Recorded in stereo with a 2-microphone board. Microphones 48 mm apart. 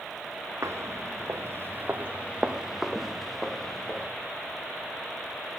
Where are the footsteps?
85° right, 1.5 m; by 4.1 s 10° left (ahead or behind), 2.5 m.